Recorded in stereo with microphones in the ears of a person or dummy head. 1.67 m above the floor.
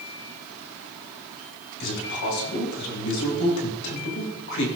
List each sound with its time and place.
1.8 s a man speaking: 70° left (ahead or behind), 7 m